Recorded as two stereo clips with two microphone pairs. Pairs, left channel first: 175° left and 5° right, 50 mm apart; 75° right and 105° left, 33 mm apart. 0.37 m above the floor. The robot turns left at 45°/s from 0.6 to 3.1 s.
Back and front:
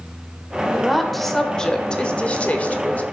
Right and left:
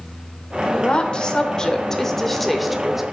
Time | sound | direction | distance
0.7 | a woman speaking | 85° right | 0.9 m